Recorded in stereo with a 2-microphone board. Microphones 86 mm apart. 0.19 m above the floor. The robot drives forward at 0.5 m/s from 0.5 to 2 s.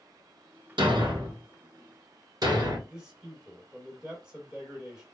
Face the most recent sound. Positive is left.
turn(degrees=-10)  # may be behind; listen again after turning